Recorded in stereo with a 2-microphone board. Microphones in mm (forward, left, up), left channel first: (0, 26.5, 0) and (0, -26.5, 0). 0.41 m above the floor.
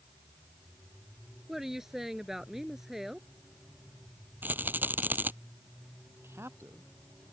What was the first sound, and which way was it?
A woman speaking, 5° right (ahead or behind).